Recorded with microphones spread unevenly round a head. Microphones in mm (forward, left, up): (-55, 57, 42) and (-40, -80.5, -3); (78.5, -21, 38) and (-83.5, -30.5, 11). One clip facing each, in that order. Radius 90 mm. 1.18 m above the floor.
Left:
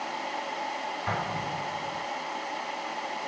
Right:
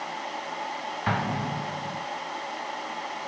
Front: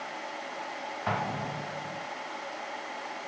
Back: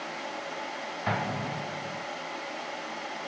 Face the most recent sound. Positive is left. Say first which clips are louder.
# right 5 dB, back 1 dB
turn(degrees=-95)